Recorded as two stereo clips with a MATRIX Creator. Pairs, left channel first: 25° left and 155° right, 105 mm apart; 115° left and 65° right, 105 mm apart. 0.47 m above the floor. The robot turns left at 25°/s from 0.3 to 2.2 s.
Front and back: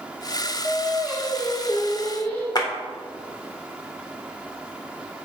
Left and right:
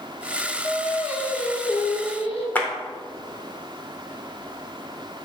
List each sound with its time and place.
0.6 s singing: 135° left, 2.5 m; by 2.5 s 95° left, 2.5 m
2.5 s a clap: 45° left, 1.2 m